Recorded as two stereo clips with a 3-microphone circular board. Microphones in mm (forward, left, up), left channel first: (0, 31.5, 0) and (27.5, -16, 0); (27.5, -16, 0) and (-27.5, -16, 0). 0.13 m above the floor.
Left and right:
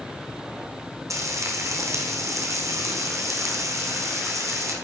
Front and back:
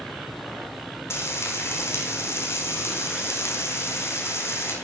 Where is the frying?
40° right, 5 m.